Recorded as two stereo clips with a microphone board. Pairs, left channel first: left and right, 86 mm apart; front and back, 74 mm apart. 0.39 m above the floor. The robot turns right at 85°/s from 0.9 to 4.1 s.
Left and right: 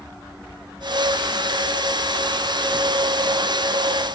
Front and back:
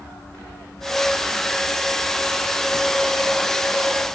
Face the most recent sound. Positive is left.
No sound to turn to.